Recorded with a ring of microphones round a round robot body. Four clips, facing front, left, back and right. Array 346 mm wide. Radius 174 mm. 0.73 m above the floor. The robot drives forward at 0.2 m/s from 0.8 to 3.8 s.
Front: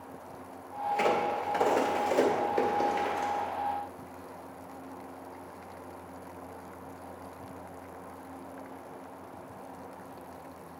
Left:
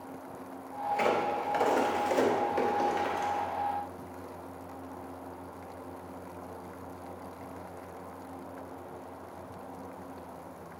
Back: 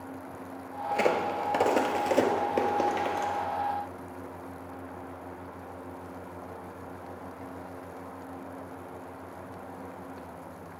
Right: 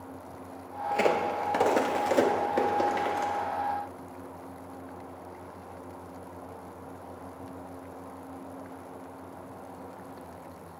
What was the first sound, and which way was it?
A crack, 130° right.